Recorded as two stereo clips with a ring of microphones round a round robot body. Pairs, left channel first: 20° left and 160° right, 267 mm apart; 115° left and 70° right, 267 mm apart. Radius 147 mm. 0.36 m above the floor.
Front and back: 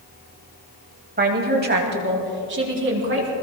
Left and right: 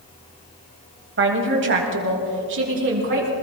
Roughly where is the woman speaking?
Right.